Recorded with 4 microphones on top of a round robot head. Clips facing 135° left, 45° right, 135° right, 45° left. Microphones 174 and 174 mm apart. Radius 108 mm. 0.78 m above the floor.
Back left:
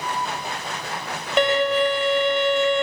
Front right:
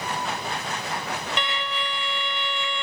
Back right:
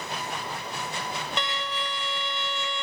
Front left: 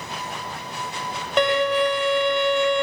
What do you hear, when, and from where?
1.4 s a violin: 85° left